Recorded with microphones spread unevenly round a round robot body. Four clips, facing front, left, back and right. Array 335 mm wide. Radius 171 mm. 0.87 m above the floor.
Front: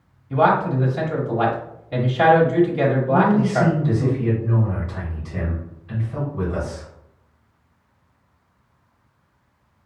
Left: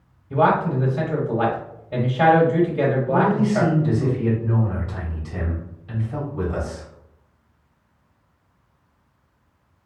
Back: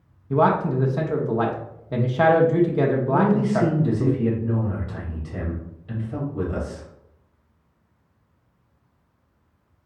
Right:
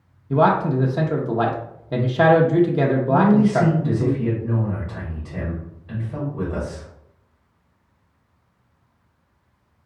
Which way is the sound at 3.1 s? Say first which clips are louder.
Right 6 dB, front 2 dB; 145° left.